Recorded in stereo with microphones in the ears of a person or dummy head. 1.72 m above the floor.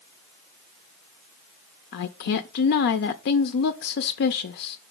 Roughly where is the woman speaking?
Left.